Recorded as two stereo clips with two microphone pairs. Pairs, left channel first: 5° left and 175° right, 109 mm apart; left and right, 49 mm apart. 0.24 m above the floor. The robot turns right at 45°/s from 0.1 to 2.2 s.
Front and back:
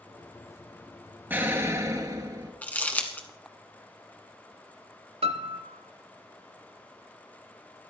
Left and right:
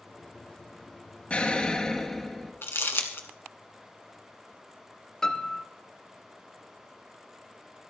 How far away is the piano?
About 0.8 m.